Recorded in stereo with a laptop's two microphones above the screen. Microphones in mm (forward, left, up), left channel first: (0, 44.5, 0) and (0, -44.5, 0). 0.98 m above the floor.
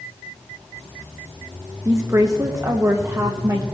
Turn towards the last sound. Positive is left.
turn(degrees=-35)  # may be behind; listen again after turning